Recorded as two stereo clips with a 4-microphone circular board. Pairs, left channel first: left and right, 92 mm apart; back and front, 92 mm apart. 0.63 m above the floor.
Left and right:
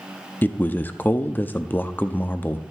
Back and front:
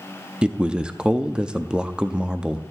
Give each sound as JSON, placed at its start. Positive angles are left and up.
{"t": 0.4, "sound": "a man speaking", "azimuth_deg": 65, "distance_m": 0.6}